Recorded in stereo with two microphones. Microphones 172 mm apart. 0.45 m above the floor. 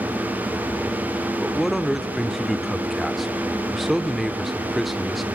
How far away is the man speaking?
About 0.8 m.